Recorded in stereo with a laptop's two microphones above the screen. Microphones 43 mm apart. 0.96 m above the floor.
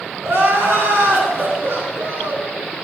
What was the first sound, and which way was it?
Crying, 85° right.